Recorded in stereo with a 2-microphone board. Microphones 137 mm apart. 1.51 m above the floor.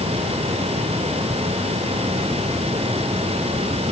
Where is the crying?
No crying in this recording.